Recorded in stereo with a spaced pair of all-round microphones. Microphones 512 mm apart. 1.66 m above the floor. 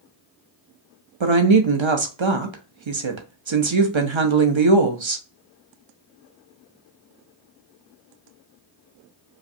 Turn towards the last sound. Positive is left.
turn(degrees=-65)  # may be behind; listen again after turning